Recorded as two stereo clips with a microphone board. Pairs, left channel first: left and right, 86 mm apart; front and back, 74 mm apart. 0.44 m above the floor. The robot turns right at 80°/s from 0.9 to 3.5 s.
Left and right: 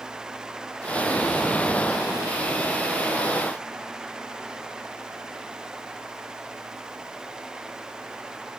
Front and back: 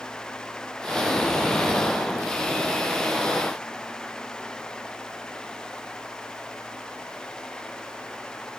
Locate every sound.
Only background noise.